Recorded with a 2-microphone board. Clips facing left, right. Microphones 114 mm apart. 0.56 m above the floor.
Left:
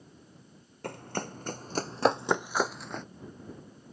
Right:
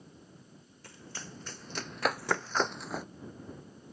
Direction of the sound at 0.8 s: 60° left (ahead or behind).